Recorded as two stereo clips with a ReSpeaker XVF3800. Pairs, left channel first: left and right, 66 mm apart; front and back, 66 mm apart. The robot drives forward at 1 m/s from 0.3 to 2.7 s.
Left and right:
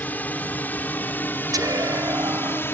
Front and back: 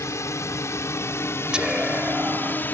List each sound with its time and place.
0.0 s a drone: 30° left; by 2.7 s 50° left
1.5 s whispering: 105° right; by 2.6 s 120° right